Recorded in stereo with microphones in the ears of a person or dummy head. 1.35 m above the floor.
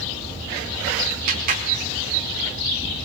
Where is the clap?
55° right (ahead or behind), 4 m.